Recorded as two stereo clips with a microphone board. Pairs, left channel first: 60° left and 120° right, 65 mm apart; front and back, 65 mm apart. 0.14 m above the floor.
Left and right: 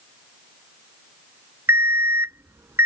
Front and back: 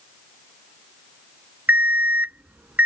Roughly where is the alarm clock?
Behind right.